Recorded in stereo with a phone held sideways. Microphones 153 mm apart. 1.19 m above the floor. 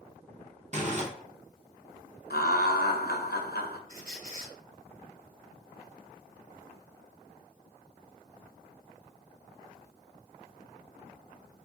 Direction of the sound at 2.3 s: 75° left (ahead or behind).